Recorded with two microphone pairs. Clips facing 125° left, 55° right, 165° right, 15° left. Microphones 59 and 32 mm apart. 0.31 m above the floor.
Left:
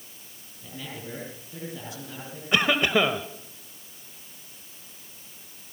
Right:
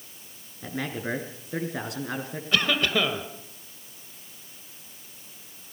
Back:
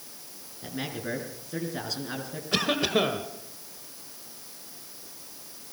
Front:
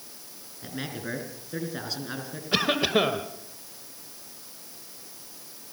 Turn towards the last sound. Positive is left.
turn(degrees=85)